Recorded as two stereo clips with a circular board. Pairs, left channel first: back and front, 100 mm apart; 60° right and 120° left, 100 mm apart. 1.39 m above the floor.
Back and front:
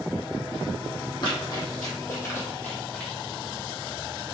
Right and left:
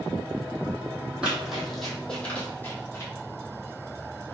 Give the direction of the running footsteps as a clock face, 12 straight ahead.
5 o'clock.